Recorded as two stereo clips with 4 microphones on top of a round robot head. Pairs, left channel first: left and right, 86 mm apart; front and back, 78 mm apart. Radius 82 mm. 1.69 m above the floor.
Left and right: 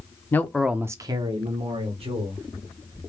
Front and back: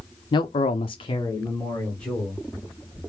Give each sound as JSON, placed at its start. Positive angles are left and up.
{"t": 0.3, "sound": "a man speaking", "azimuth_deg": 25, "distance_m": 0.9}